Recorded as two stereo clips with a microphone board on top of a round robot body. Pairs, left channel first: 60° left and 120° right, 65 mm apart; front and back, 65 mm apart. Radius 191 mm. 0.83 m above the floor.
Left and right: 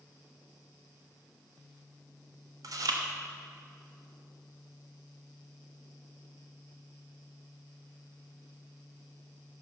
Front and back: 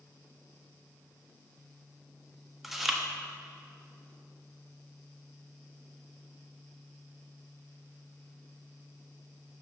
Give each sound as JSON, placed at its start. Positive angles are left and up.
{"t": 2.6, "sound": "chewing", "azimuth_deg": -95, "distance_m": 1.5}